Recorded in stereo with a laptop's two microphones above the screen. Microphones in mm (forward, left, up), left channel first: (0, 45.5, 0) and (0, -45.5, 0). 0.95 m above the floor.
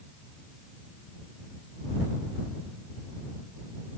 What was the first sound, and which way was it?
Only background noise.